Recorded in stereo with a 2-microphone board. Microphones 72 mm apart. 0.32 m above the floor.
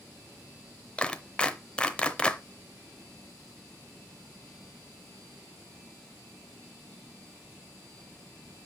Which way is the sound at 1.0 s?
15° left (ahead or behind).